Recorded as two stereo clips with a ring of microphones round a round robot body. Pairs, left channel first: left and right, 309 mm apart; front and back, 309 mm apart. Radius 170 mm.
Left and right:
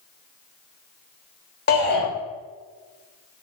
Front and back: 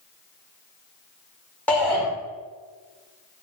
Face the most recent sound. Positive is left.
turn(degrees=80)